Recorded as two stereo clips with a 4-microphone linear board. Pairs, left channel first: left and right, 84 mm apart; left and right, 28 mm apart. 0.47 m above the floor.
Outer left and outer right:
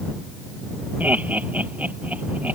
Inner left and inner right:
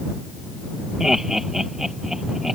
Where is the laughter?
20° right (ahead or behind).